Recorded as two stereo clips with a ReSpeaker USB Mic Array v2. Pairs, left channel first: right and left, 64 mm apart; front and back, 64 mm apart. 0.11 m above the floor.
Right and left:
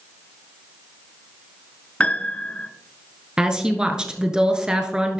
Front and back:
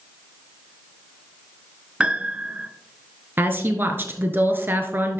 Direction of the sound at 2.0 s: 130° right.